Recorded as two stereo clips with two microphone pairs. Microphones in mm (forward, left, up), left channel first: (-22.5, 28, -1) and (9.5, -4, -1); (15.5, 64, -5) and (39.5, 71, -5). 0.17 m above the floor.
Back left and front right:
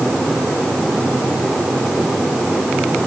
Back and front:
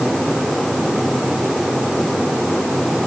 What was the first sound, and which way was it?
Only background noise.